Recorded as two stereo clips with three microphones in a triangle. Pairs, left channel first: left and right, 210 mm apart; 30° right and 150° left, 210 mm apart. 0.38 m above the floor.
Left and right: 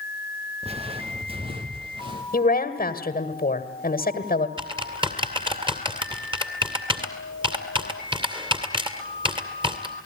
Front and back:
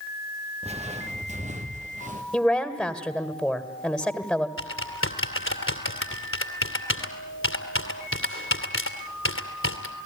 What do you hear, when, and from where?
0.6 s footsteps: 150° right, 2.5 m; by 2.2 s 155° right, 4 m
2.3 s a woman speaking: 60° left, 1.7 m
4.6 s typing on a keyboard: 20° right, 2.5 m